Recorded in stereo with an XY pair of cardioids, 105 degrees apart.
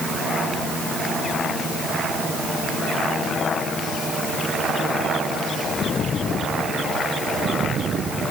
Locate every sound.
Only background noise.